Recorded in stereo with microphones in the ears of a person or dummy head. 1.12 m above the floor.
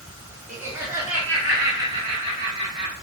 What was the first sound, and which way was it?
Laughter, 10° right (ahead or behind).